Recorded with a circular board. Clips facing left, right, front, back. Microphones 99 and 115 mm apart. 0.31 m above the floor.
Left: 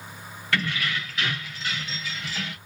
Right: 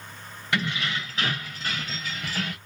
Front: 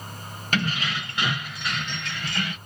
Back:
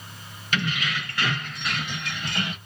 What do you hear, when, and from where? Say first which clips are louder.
0.5 s keys jangling: even, front 1 dB; 25° right, 0.8 m; by 2.6 s 120° right, 1.0 m